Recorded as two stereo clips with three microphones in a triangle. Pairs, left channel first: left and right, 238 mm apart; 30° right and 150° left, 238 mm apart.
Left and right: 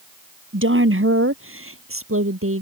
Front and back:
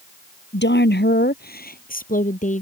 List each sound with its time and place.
0.5 s a woman speaking: 65° right; by 2.6 s 85° right